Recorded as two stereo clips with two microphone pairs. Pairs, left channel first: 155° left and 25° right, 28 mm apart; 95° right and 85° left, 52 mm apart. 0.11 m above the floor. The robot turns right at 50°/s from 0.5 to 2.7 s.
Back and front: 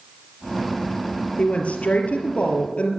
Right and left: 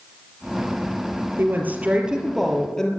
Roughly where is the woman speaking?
Behind left.